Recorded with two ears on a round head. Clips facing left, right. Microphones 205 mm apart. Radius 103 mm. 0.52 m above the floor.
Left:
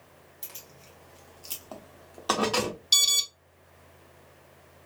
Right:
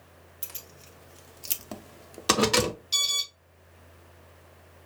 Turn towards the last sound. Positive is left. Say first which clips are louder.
# left 1 dB
turn(degrees=55)  # may be behind; listen again after turning